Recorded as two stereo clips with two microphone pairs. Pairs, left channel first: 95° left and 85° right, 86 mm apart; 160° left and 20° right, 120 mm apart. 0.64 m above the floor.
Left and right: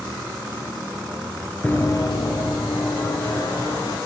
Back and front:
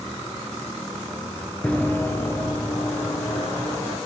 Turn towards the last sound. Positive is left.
turn(degrees=90)